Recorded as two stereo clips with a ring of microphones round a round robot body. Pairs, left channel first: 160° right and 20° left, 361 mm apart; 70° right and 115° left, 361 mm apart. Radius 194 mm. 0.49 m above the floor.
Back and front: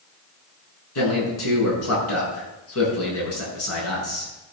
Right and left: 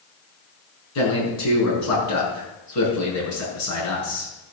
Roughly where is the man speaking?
Right.